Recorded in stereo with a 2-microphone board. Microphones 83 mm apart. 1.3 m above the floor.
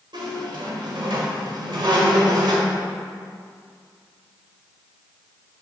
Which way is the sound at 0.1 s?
65° right (ahead or behind).